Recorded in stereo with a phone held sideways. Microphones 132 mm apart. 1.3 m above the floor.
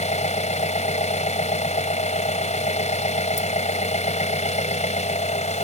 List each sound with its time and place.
0.0 s an engine running: 60° left (ahead or behind)